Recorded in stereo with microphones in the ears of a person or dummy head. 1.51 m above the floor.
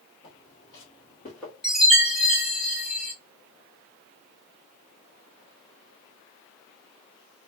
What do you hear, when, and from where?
0.2 s footsteps: 30° left (ahead or behind), 1.7 m; by 1.5 s centre (ahead or behind), 1.7 m
1.6 s a chime: 5° right (ahead or behind), 1.7 m